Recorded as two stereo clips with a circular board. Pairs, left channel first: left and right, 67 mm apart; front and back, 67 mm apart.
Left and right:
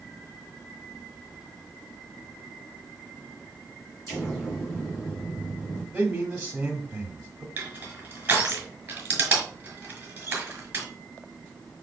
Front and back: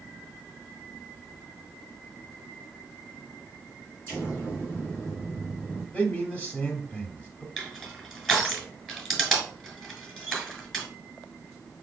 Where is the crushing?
90° right, 1.6 m.